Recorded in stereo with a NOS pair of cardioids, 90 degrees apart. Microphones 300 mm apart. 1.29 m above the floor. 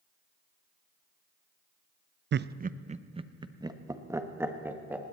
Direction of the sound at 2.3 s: 40° right.